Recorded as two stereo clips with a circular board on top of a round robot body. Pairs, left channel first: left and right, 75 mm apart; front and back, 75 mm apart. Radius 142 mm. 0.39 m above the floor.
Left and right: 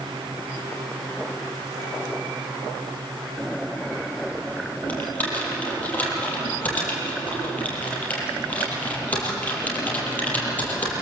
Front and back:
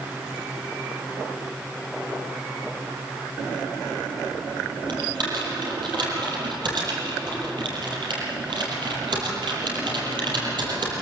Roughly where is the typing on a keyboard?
Behind.